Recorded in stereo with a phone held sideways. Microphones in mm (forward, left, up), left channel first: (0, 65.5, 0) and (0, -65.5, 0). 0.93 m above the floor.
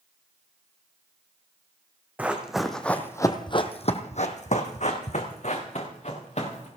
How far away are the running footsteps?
About 2 m.